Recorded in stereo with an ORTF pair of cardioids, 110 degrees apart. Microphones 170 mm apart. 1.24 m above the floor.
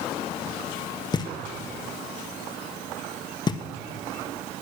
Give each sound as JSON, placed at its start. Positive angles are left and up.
{"t": 1.1, "sound": "knocking", "azimuth_deg": 25, "distance_m": 1.0}